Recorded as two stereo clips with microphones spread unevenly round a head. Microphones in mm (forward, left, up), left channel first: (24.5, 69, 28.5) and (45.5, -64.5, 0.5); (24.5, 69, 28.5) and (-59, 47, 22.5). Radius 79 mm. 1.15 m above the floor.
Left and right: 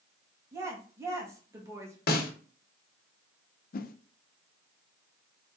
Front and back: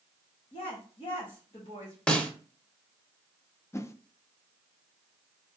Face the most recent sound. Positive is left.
turn(degrees=75)